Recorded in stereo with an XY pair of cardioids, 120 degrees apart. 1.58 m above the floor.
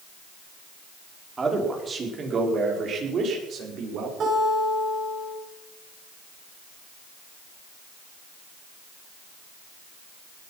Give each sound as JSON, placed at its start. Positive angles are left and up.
{"t": 1.4, "sound": "a man speaking", "azimuth_deg": -25, "distance_m": 5.0}
{"t": 4.2, "sound": "a guitar", "azimuth_deg": -45, "distance_m": 9.0}